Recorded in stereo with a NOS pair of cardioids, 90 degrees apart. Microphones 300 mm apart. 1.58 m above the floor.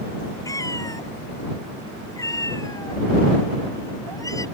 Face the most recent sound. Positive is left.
turn(degrees=10)